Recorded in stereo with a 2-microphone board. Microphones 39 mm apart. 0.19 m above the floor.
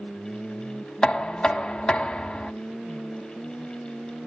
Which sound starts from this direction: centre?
Knocking, at 1.0 s.